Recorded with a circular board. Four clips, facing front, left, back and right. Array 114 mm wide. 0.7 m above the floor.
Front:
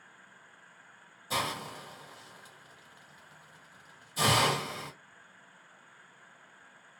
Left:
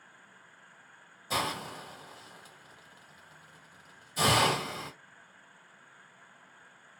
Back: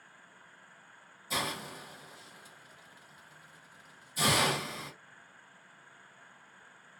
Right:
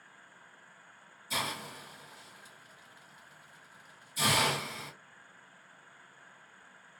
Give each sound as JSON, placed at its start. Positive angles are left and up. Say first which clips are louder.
{"t": 1.3, "sound": "a hiss", "louder": "left 4 dB, front 2 dB", "azimuth_deg": 65, "distance_m": 1.2}